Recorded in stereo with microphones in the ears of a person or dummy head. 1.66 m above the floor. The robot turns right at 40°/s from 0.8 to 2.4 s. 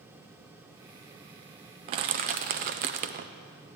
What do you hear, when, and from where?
1.9 s crushing: 30° right (ahead or behind), 0.5 m; by 3.3 s 40° right (ahead or behind), 0.5 m